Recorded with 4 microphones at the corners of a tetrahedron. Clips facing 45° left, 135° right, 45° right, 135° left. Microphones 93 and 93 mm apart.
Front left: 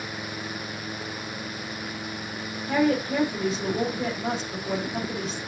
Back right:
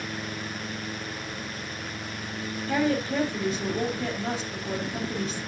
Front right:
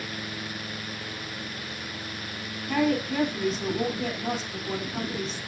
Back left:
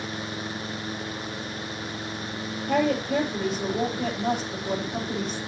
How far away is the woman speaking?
About 7.5 m.